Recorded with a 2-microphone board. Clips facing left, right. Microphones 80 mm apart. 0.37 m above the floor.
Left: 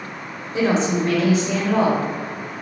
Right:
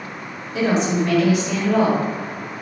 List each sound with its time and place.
0.5 s a woman speaking: 35° left (ahead or behind), 1.4 m